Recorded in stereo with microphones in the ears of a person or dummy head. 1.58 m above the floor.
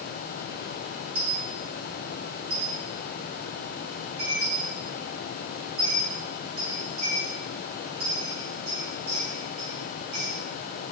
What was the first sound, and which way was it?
A dropped coin, 45° right (ahead or behind).